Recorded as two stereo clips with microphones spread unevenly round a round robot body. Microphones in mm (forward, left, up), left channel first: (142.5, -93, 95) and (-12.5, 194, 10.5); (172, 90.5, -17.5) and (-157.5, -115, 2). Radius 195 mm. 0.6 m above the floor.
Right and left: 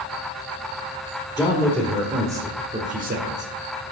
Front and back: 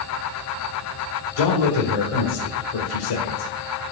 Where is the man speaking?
20° left, 2 m; by 3.8 s 75° left, 2.5 m.